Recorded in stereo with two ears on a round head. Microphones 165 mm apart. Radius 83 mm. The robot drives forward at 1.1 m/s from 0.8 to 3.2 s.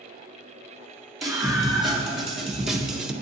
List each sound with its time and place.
1.2 s a scream: centre (ahead or behind), 3 m; by 3.1 s 5° right (ahead or behind), 0.8 m